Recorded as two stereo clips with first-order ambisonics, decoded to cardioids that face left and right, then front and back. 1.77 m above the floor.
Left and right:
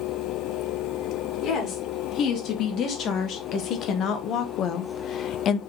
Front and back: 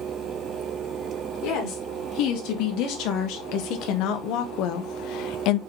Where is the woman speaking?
35° left, 3 m; by 5.6 s 30° left, 0.6 m.